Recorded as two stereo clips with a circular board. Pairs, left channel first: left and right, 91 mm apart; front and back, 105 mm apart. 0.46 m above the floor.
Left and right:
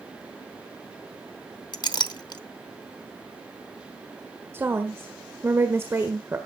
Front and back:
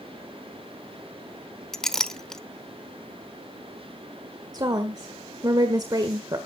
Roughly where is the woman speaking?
Behind right.